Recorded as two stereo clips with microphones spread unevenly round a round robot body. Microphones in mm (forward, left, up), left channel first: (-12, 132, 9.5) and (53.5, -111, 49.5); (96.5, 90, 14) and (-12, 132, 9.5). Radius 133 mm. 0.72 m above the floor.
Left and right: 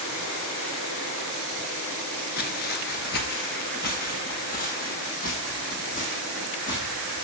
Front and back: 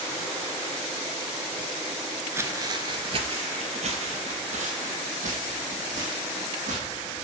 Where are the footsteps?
120° left, 0.7 m; by 7.2 s 170° left, 3 m.